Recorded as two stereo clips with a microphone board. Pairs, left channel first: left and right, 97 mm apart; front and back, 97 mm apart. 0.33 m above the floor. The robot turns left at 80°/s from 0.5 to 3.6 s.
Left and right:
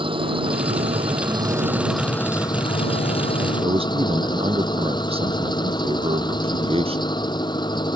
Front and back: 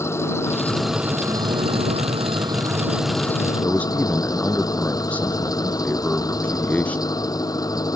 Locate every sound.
0.0 s an engine running: 60° right; by 8.0 s 50° left
3.6 s a man speaking: 75° right